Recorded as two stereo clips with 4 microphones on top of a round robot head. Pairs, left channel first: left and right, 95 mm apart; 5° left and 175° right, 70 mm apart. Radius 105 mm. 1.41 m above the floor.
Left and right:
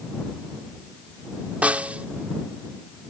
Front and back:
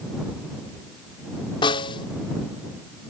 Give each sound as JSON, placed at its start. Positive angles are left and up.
{"t": 1.6, "sound": "a snare drum", "azimuth_deg": -15}